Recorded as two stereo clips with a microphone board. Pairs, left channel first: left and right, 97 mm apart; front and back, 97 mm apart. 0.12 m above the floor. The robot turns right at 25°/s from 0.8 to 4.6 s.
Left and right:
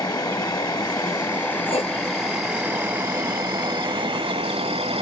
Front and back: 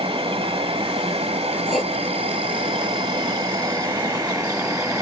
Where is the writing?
90° left, 2.5 m; by 1.9 s 95° left, 2.5 m.